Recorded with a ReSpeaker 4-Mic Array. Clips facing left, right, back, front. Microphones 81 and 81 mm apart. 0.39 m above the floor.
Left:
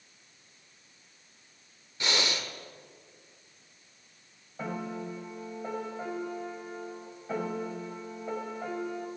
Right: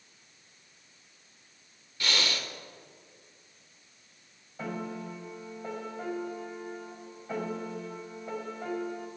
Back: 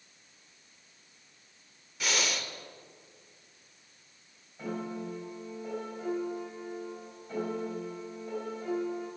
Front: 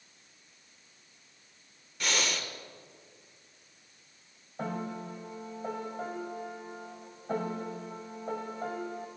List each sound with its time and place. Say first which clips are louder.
2.0 s breathing: left 1 dB, even; 95° left, 0.8 m
4.6 s a piano: left 1 dB, even; 20° left, 2 m